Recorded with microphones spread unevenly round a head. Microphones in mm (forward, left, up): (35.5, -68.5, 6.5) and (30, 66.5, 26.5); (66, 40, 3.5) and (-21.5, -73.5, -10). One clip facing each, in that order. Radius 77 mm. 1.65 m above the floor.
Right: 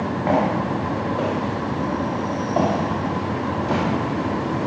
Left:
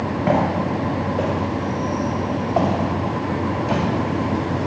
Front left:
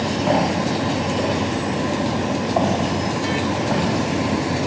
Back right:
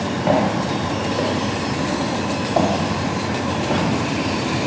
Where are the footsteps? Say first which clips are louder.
Left 1 dB, back right 2 dB; 170° left, 6.5 m; by 4.7 s 175° right, 4 m.